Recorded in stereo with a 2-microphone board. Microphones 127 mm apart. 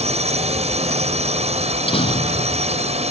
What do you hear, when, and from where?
0.0 s a drone: 55° right (ahead or behind)
1.6 s a door slam: 45° left (ahead or behind)